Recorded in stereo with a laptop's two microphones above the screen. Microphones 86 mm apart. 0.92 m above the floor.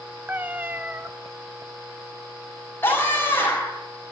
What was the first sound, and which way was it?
A cat meowing, 20° right (ahead or behind).